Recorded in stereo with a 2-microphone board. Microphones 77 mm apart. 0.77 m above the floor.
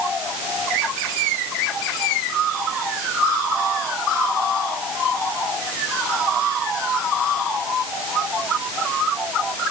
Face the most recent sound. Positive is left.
No sound to turn to.